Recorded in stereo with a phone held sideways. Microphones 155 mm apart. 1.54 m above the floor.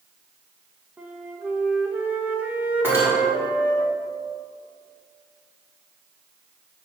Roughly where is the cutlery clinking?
Centre.